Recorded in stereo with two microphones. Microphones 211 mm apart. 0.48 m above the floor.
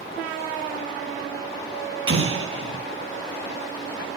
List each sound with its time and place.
2.1 s an explosion: 70° right (ahead or behind), 4 m